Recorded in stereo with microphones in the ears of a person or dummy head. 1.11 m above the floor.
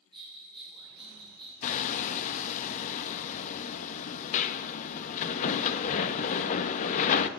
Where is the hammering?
40° left (ahead or behind), 1.2 m.